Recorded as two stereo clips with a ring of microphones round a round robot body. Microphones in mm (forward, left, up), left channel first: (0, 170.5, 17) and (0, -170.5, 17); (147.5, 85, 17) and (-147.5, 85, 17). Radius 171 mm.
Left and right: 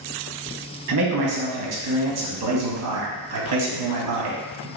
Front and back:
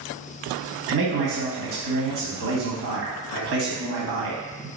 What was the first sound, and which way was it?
A man speaking, 130° right.